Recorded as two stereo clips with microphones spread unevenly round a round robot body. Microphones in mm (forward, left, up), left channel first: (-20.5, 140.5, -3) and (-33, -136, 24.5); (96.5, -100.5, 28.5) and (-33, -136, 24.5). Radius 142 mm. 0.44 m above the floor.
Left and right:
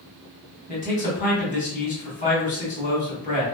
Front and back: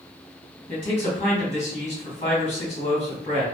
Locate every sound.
0.7 s a man speaking: 35° left, 1.2 m